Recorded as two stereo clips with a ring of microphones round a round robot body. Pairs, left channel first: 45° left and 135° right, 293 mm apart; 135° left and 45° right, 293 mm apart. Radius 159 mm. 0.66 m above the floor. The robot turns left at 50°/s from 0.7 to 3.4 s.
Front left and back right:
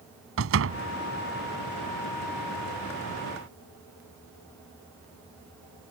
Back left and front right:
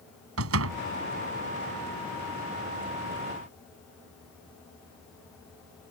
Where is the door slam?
90° right; by 0.8 s 95° right.